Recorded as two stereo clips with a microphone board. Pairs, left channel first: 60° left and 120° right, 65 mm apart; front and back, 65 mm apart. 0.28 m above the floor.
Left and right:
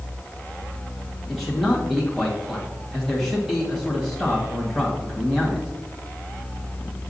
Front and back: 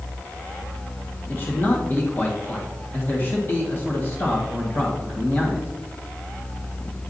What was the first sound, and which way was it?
A man speaking, 25° right.